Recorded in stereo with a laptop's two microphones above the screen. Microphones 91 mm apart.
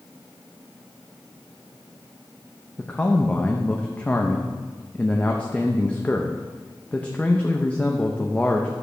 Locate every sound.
2.8 s a man speaking: 15° left (ahead or behind), 0.8 m